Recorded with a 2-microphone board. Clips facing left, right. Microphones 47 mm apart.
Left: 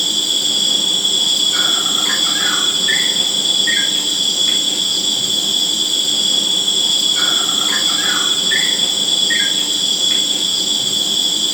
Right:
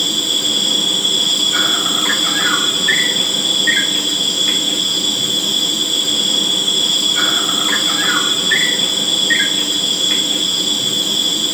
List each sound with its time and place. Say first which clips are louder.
0.0 s an insect: right 1 dB; 25° right (ahead or behind), 2.5 m